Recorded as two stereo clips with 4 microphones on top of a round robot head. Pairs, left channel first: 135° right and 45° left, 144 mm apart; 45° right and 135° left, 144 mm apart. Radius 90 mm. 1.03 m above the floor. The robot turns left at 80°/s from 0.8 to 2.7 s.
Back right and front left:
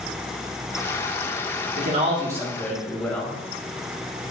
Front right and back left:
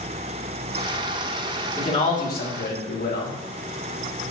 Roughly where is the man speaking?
Ahead.